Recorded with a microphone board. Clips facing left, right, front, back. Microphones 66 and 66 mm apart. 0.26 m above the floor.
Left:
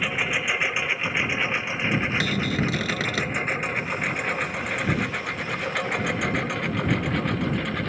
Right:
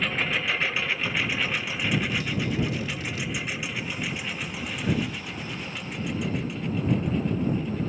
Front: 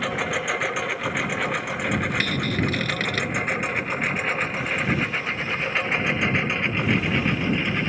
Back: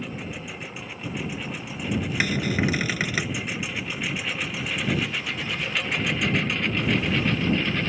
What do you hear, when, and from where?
0.0 s a lawn mower: 10° left; by 7.9 s 70° left
2.2 s a cupboard door: 100° left